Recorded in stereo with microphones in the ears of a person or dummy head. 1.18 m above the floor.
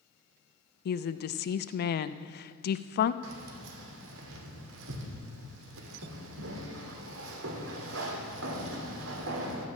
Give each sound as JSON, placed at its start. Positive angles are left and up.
{"t": 0.8, "sound": "a woman speaking", "side_deg": 55, "distance_m": 0.5}
{"t": 3.2, "sound": "keys jangling", "side_deg": -80, "distance_m": 2.0}